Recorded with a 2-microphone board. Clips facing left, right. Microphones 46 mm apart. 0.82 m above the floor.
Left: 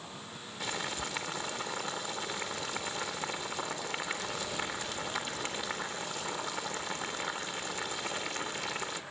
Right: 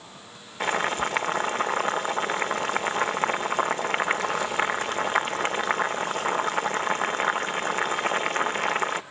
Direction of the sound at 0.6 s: 50° right (ahead or behind).